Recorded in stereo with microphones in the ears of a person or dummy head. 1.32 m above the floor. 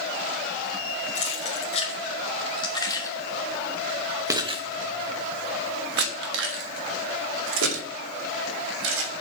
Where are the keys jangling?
40° left (ahead or behind), 2 m; by 9.1 s 75° right (ahead or behind), 3 m.